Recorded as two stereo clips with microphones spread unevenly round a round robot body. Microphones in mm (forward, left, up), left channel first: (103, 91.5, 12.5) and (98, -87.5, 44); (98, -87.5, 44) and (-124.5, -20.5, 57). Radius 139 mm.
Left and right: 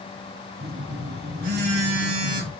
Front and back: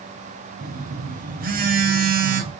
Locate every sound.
0.6 s a phone buzzing: 145° right, 1.1 m